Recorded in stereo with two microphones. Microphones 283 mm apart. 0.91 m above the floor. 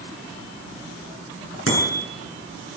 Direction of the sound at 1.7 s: 50° left (ahead or behind).